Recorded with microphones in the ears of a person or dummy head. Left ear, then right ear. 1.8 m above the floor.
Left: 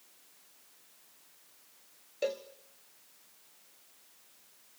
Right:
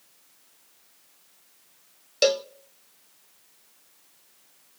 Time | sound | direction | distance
2.2 | a cowbell | 60° right (ahead or behind) | 0.5 m